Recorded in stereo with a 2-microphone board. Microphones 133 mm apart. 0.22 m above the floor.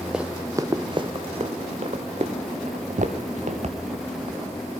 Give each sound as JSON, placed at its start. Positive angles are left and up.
{"t": 0.1, "sound": "running footsteps", "side_deg": -5, "distance_m": 0.6}
{"t": 2.7, "sound": "footsteps", "side_deg": -70, "distance_m": 0.5}